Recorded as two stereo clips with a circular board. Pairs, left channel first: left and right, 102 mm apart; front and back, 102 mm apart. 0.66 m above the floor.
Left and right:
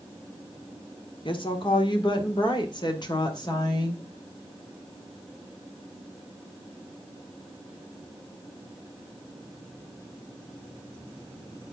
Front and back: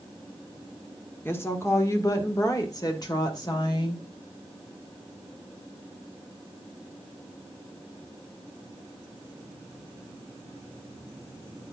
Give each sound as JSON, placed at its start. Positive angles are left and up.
{"t": 1.2, "sound": "a woman speaking", "azimuth_deg": 65, "distance_m": 1.8}